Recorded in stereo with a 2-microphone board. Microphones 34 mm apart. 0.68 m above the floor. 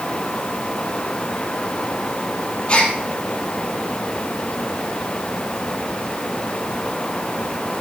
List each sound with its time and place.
2.7 s a gasp: 40° left (ahead or behind), 3 m